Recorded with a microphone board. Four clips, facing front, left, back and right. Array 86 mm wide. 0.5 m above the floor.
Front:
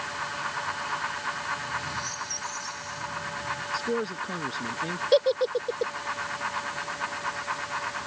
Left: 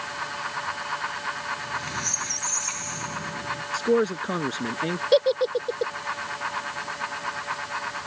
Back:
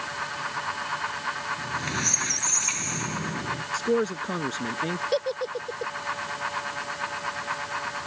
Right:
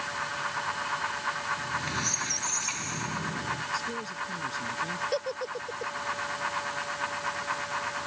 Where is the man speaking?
110° left.